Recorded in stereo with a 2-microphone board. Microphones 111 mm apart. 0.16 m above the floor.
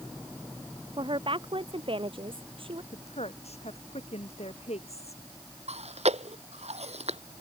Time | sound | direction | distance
1.0 | a woman speaking | 50° right (ahead or behind) | ?
2.9 | a woman speaking | 70° left (ahead or behind) | ?
5.7 | chewing | 75° right (ahead or behind) | ?